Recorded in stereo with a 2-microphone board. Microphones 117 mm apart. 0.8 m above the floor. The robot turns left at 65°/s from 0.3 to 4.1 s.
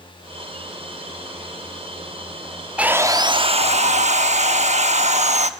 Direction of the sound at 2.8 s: 10° right.